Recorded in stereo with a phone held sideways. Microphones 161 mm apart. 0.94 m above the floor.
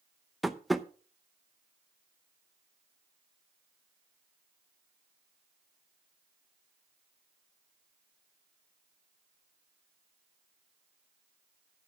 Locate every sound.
0.4 s tapping: centre (ahead or behind), 0.7 m